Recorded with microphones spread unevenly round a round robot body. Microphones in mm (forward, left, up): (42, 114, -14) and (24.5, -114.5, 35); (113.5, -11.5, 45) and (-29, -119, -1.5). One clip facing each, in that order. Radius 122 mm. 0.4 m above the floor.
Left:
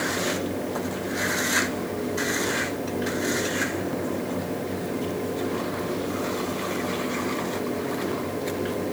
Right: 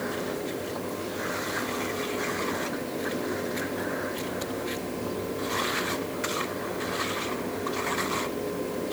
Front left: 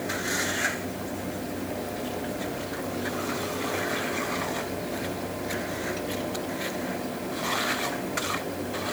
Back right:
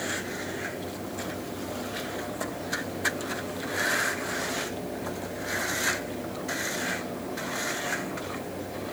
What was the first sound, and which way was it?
Only background noise.